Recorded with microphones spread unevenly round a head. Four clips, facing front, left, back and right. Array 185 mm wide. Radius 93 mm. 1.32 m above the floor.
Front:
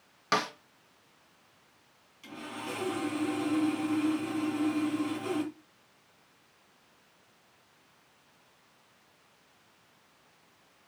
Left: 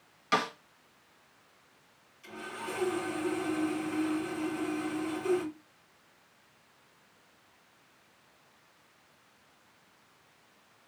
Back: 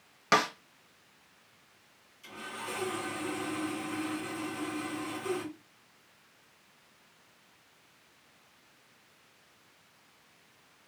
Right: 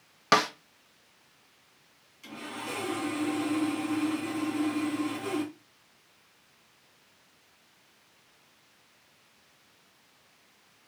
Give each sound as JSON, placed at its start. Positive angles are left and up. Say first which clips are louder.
{"t": 0.3, "sound": "a snare drum", "louder": "right 5 dB, back 3 dB", "azimuth_deg": -110, "distance_m": 0.9}
{"t": 2.2, "sound": "sawing", "louder": "right 1 dB, front 2 dB", "azimuth_deg": -45, "distance_m": 3.0}